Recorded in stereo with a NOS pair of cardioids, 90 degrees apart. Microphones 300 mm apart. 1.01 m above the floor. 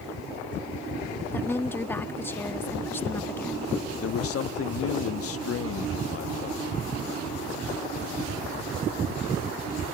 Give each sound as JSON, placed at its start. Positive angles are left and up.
{"t": 1.3, "sound": "a woman speaking", "azimuth_deg": 5}
{"t": 4.0, "sound": "a man speaking", "azimuth_deg": 50}